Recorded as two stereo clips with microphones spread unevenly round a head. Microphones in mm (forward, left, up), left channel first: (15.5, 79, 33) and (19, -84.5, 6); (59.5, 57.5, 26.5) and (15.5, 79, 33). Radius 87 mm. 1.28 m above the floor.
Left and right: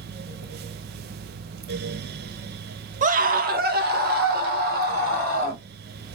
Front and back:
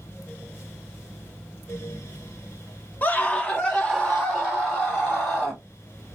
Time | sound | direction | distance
3.0 | a scream | 75° right | 0.6 m